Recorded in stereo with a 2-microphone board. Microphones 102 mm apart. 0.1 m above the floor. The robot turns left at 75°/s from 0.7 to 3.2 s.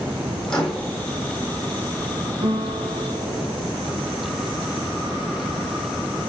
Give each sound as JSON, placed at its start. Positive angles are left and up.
{"t": 0.5, "sound": "a microwave", "side_deg": 10, "distance_m": 4.0}
{"t": 2.4, "sound": "a guitar", "azimuth_deg": -75, "distance_m": 5.5}